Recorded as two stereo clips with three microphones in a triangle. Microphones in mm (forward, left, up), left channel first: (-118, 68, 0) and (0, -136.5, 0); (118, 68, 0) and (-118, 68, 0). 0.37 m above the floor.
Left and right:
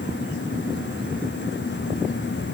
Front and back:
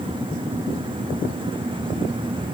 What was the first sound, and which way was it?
Only background noise.